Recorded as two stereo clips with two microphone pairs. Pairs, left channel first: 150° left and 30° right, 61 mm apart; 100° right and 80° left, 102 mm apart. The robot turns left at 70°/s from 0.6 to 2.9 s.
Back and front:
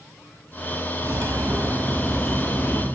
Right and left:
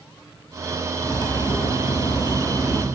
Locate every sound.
1.0 s cutlery clinking: 40° right, 0.6 m; by 2.9 s 170° right, 0.6 m